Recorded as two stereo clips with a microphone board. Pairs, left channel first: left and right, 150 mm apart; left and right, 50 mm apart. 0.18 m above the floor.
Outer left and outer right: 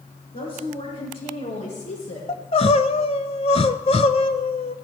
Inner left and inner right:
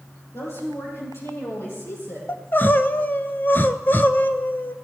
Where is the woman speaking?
75° left (ahead or behind), 5 m; by 2.2 s 65° left (ahead or behind), 6 m.